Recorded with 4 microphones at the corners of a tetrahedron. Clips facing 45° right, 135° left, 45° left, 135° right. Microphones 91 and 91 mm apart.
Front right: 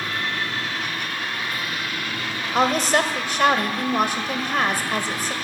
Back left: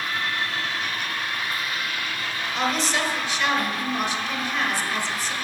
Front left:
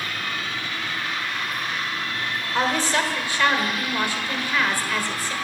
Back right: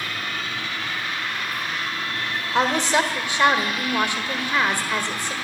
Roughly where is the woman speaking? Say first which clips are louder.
Front right 6 dB, back right 3 dB; ahead right.